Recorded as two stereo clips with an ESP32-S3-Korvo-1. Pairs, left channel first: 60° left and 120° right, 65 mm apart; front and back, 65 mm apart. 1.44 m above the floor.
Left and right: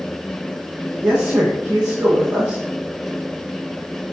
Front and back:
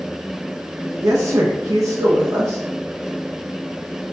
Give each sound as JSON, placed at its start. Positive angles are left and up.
{"t": 0.8, "sound": "a man speaking", "azimuth_deg": 170, "distance_m": 1.7}